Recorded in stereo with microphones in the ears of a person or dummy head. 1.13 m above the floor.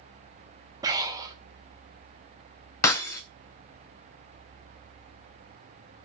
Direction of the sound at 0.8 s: 25° right (ahead or behind).